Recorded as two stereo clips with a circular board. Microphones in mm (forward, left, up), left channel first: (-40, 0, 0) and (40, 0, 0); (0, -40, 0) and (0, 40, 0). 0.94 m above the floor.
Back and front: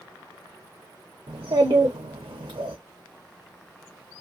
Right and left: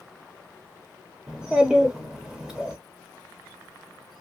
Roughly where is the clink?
I don't hear a clink.